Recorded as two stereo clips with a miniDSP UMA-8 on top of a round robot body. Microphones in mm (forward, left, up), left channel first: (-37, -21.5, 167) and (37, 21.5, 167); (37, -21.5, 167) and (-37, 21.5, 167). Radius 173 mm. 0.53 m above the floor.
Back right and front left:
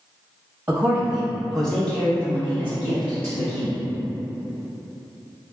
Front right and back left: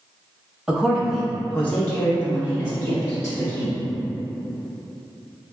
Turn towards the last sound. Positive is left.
turn(degrees=-90)